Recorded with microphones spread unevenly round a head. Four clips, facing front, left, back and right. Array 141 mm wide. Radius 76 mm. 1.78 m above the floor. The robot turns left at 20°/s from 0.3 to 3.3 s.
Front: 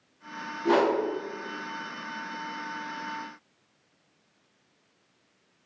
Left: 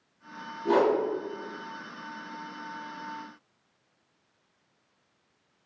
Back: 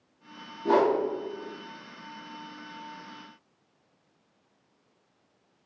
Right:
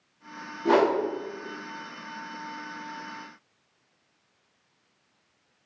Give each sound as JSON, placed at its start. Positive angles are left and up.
{"t": 0.7, "sound": "a whoosh", "azimuth_deg": -90, "distance_m": 0.7}